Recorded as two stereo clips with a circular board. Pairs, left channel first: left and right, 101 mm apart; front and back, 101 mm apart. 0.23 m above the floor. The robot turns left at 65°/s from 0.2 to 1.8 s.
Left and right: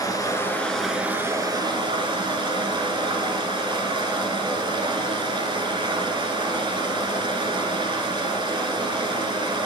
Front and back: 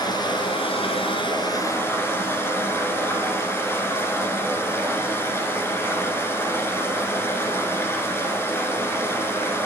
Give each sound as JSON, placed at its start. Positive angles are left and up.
{"t": 0.0, "sound": "running water", "azimuth_deg": 40, "distance_m": 1.8}